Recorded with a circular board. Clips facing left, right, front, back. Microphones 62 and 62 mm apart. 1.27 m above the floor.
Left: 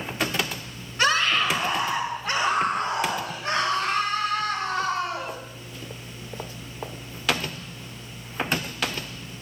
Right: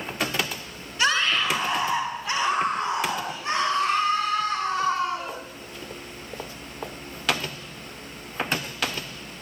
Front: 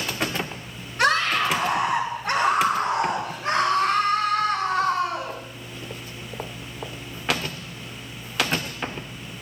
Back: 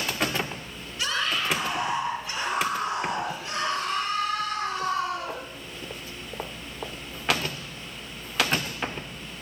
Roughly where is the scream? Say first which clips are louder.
Left 1 dB, front 7 dB; ahead left.